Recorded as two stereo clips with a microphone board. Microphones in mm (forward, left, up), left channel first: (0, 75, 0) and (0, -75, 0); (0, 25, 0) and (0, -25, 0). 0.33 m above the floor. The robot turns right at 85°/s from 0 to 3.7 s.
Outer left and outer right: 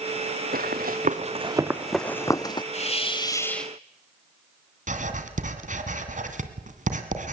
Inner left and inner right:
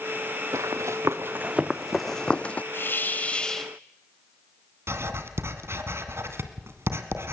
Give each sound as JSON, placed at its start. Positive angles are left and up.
{"t": 0.5, "sound": "running footsteps", "side_deg": -70, "distance_m": 1.7}
{"t": 2.7, "sound": "a hiss", "azimuth_deg": 95, "distance_m": 1.5}
{"t": 4.9, "sound": "writing", "side_deg": -60, "distance_m": 1.8}